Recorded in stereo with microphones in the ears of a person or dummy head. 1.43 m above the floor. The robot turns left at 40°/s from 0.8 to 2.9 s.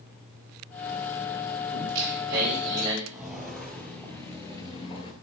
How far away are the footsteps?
About 2 m.